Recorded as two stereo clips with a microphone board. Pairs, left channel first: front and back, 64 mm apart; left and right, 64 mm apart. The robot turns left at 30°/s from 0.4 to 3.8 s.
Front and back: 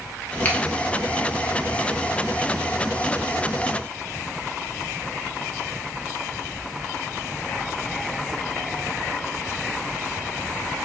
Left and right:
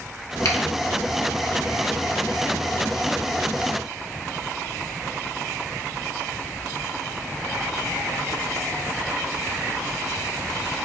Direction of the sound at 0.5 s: 65° left.